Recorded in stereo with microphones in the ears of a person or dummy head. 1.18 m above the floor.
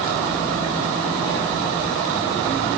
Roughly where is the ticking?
I don't hear ticking.